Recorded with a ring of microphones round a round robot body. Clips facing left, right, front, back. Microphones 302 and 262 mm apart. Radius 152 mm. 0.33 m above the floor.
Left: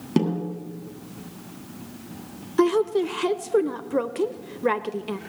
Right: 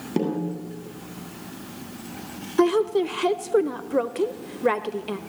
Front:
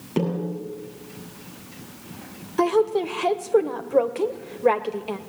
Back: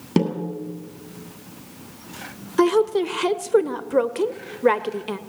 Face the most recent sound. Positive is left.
turn(degrees=170)